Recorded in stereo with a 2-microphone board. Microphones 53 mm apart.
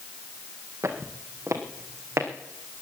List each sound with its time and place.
0.8 s footsteps: 70° right (ahead or behind), 2.5 m; by 2.3 s 65° right (ahead or behind), 3.5 m